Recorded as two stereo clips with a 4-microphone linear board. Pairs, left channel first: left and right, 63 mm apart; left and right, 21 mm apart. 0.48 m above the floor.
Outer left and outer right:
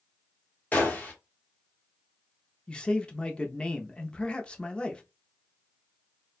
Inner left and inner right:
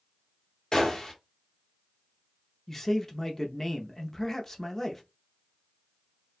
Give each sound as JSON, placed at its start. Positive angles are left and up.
{"t": 0.7, "sound": "a gunshot", "side_deg": 25, "distance_m": 1.3}
{"t": 2.7, "sound": "a man speaking", "side_deg": 15, "distance_m": 0.7}